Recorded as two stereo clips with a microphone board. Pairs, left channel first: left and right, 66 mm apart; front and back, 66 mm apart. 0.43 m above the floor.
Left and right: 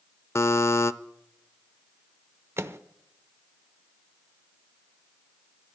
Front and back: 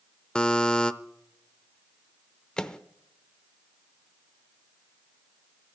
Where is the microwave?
75° right, 0.7 m.